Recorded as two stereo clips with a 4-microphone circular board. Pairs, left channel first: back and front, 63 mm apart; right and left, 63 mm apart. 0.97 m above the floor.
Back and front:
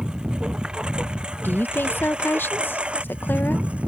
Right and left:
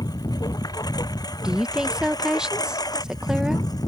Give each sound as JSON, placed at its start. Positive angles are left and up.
{"t": 0.0, "sound": "a lawn mower", "azimuth_deg": -80}
{"t": 1.4, "sound": "a woman speaking", "azimuth_deg": 160}